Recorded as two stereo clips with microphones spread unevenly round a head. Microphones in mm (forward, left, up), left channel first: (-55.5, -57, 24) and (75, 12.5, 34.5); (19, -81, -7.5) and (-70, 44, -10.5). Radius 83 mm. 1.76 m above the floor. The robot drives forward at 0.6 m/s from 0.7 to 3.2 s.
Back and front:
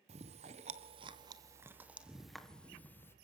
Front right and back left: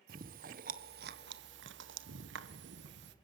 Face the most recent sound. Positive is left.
turn(degrees=130)